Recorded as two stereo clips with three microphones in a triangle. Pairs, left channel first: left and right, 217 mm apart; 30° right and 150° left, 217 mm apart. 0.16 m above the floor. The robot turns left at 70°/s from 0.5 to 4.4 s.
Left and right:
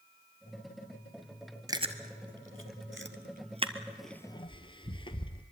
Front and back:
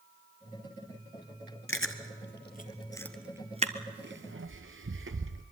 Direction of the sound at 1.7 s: 15° right.